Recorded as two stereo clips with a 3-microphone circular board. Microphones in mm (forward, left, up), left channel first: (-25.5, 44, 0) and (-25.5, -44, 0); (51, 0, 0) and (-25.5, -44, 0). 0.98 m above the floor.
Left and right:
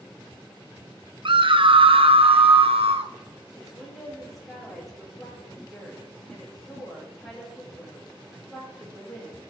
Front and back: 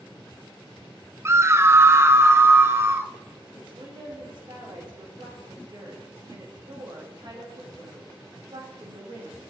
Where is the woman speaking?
Straight behind, 5.5 m.